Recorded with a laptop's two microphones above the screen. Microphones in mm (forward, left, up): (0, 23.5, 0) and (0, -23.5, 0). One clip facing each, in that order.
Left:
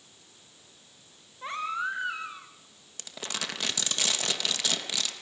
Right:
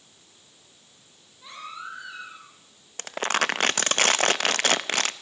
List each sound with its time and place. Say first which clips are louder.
1.4 s a baby crying: left 7 dB; 45° left (ahead or behind), 3 m
3.0 s crumpling: right 12 dB; 55° right (ahead or behind), 0.7 m